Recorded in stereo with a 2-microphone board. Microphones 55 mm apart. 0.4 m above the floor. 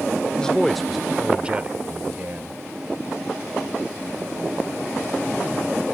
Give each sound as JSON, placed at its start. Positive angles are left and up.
{"t": 0.4, "sound": "a man speaking", "side_deg": 15}